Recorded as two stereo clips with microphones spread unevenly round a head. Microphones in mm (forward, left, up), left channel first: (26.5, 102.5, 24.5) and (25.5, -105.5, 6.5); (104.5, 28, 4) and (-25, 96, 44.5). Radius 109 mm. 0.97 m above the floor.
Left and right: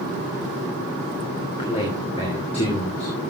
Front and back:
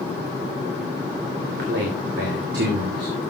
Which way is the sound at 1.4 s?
155° left.